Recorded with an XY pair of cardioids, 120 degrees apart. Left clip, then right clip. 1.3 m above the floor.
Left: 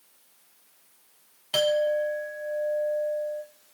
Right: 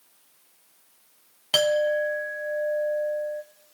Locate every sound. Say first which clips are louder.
1.5 s a clink: right 2 dB; 30° right, 0.7 m